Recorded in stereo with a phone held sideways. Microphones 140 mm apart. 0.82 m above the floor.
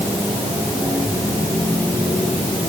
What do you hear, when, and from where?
Only background noise.